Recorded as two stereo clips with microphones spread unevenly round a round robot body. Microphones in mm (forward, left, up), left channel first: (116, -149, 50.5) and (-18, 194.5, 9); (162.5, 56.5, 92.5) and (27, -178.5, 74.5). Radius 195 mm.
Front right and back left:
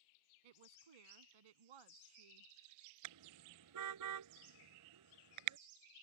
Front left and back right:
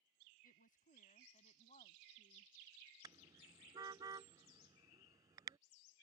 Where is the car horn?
160° left.